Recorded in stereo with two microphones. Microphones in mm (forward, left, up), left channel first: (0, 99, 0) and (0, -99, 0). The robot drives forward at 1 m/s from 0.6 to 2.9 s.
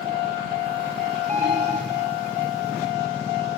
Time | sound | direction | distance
1.3 | an alarm | 35° right (ahead or behind) | 4 m